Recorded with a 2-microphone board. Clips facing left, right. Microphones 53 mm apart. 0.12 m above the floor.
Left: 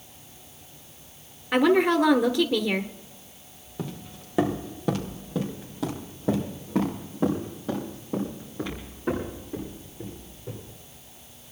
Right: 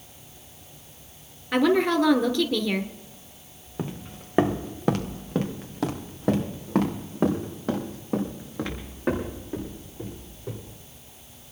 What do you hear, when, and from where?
1.5 s a woman speaking: 10° left (ahead or behind), 1.7 m
3.8 s footsteps: 30° right (ahead or behind), 1.2 m; by 10.7 s 85° right, 8.5 m